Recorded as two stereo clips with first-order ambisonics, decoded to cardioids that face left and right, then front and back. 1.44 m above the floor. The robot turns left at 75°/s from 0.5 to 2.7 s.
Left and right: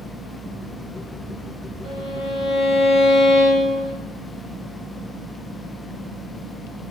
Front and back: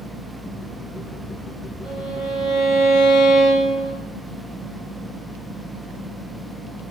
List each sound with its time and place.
1.8 s a violin: 105° right, 1.2 m; by 4.0 s 170° right, 1.2 m